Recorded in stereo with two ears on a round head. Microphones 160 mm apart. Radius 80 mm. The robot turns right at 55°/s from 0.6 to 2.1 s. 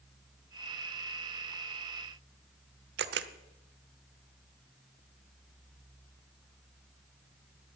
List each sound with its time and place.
3.0 s a camera shutter: 65° right (ahead or behind), 0.7 m